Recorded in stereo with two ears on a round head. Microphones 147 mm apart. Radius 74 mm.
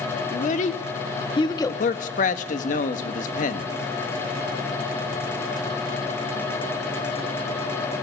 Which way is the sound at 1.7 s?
50° left (ahead or behind).